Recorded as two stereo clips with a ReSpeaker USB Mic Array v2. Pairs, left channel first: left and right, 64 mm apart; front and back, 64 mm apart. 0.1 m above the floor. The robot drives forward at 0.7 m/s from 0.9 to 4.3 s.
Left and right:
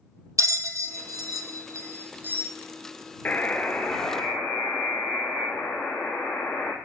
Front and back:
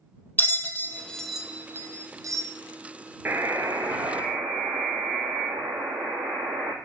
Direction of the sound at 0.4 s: 55° right.